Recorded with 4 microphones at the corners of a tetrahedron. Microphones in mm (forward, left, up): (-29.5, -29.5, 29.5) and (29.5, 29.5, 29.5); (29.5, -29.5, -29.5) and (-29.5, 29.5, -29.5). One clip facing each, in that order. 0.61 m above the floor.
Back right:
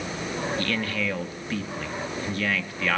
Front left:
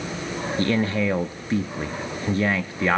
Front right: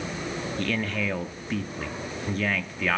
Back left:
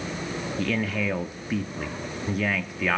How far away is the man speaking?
About 0.6 m.